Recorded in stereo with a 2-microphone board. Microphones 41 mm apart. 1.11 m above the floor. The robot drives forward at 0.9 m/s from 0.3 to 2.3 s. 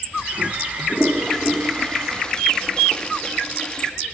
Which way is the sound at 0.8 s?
15° left (ahead or behind).